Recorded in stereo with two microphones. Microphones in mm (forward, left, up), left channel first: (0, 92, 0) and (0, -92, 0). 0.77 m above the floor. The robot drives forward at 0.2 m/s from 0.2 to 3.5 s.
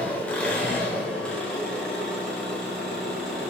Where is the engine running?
5° left (ahead or behind), 0.8 m.